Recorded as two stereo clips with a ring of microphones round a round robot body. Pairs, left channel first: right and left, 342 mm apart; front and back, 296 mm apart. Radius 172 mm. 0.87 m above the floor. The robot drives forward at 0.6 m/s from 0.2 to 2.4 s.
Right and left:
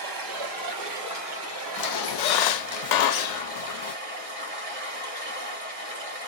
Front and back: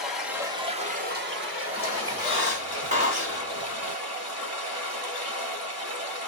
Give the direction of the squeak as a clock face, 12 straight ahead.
2 o'clock.